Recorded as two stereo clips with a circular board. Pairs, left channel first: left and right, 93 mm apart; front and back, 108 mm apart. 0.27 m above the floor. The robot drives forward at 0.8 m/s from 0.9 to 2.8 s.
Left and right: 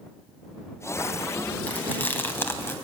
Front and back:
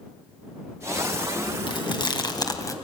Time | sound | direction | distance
1.7 | chewing | 25° left | 2.5 m